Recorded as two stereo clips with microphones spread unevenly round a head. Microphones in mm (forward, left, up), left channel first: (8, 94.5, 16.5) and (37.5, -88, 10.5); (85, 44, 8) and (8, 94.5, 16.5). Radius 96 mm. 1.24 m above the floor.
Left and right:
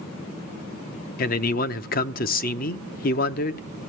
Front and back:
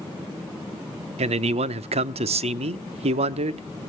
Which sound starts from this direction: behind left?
A man speaking, at 1.2 s.